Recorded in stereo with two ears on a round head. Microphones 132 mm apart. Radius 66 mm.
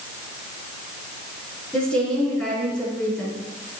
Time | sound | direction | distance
1.7 | a woman speaking | 5° left (ahead or behind) | 5 m